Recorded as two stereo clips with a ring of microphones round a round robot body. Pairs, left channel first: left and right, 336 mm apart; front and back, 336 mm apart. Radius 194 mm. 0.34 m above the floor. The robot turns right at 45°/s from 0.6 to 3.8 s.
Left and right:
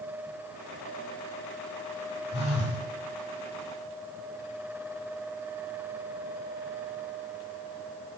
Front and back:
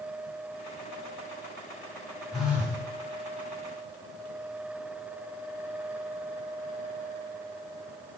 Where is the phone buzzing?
90° left, 0.9 m; by 2.8 s 110° left, 0.9 m.